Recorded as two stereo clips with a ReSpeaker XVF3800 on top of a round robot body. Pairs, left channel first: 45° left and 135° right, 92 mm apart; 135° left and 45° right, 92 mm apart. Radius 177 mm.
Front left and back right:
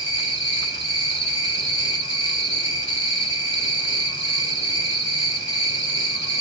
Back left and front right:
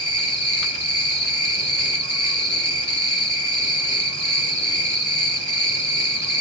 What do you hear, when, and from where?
0.0 s an insect: 20° left, 5.5 m